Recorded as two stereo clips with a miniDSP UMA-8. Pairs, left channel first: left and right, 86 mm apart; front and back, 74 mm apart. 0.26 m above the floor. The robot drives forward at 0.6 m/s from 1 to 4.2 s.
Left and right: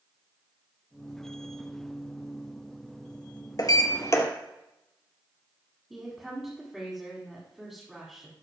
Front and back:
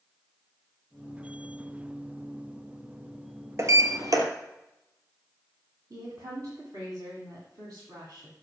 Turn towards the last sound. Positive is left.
turn(degrees=-175)